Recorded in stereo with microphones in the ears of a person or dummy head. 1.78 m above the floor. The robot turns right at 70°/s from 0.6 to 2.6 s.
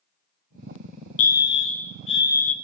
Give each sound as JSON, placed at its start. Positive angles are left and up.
{"t": 1.2, "sound": "a fire alarm", "azimuth_deg": 45, "distance_m": 0.9}